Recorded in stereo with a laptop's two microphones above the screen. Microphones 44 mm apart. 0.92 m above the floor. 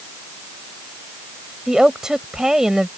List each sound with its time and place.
1.7 s a woman speaking: 15° right (ahead or behind)